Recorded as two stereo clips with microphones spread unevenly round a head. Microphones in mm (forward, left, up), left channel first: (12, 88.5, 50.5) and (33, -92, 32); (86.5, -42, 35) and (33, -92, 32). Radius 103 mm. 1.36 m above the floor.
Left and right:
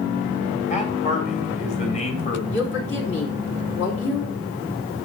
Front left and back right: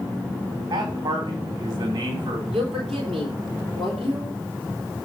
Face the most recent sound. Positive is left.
turn(degrees=130)